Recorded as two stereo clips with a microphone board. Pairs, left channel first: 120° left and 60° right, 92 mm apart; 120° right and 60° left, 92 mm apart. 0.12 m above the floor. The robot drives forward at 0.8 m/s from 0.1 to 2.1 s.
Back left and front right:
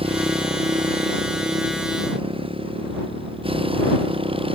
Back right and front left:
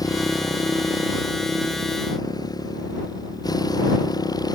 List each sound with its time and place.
0.0 s a motorcycle: 70° right; by 4.6 s 75° right